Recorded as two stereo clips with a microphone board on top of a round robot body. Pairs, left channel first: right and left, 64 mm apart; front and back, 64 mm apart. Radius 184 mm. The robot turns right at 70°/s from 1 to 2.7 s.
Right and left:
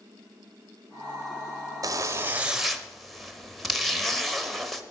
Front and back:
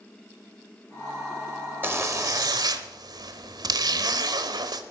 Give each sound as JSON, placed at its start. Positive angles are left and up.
{"t": 1.8, "sound": "a zipper", "azimuth_deg": 120, "distance_m": 0.8}